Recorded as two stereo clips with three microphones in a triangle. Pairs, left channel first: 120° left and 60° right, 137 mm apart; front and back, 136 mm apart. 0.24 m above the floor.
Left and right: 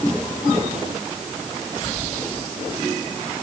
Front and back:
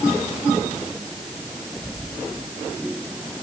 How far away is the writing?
No writing in this recording.